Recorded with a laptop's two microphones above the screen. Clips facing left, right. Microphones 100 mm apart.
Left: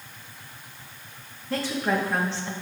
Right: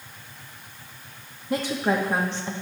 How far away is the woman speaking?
About 1.1 m.